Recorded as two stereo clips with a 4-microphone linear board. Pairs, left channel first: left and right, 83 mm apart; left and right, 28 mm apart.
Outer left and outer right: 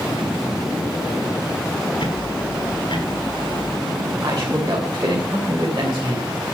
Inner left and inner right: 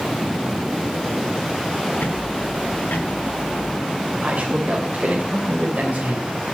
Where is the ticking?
75° left (ahead or behind), 3.5 m.